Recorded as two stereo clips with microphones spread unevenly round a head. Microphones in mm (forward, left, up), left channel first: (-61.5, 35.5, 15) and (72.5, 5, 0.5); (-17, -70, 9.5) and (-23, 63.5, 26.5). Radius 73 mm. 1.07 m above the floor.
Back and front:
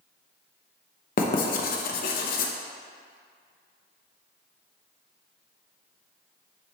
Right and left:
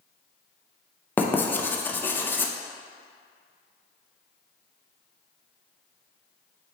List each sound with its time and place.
1.2 s writing: 160° right, 0.7 m